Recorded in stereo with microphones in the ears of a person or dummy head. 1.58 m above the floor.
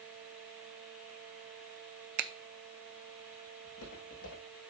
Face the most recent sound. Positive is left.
turn(degrees=60)  # may be behind; listen again after turning